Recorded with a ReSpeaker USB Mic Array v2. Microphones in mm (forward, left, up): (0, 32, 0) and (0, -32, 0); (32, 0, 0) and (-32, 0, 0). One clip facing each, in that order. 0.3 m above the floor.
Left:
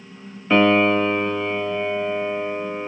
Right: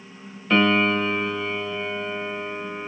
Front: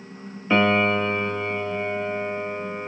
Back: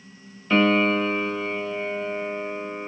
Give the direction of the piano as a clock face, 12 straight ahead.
11 o'clock.